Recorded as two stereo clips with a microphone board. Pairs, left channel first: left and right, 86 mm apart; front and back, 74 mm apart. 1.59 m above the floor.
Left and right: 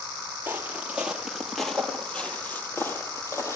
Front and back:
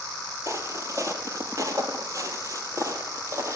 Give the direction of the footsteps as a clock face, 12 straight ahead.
5 o'clock.